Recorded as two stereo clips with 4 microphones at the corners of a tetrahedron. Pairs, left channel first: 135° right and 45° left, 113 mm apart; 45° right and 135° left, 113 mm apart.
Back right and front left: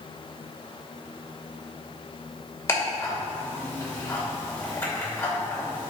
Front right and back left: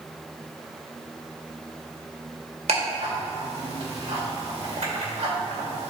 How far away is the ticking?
About 2 m.